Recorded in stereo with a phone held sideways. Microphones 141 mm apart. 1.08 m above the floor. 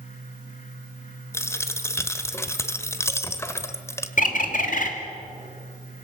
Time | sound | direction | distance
0.0 | a fan | 65° left (ahead or behind) | 2 m
1.3 | a dropped coin | 20° left (ahead or behind) | 1.2 m
4.2 | a bird | 65° left (ahead or behind) | 2.5 m